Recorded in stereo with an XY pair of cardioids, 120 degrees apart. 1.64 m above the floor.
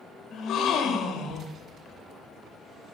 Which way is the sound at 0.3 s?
60° left.